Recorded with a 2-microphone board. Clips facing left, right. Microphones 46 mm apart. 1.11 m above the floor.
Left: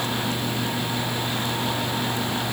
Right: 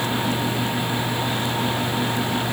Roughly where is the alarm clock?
I don't hear an alarm clock.